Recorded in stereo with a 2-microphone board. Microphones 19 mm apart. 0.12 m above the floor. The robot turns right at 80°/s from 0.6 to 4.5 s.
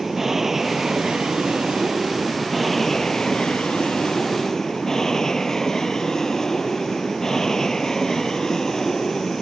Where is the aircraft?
165° right; by 9.4 s 145° left.